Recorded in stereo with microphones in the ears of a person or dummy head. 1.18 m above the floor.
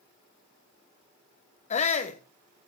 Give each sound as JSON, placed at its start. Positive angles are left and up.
{"t": 1.7, "sound": "a shout", "side_deg": 40, "distance_m": 1.6}